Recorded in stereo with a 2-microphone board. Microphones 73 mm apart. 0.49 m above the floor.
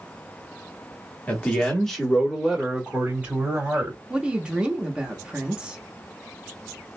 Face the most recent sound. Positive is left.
turn(degrees=-15)  # may be behind; listen again after turning